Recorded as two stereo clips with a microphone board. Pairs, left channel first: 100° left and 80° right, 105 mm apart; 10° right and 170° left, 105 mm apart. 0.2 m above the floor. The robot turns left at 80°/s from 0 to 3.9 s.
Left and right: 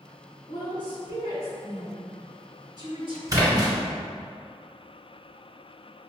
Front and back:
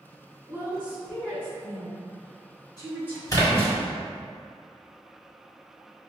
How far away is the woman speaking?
About 1.8 m.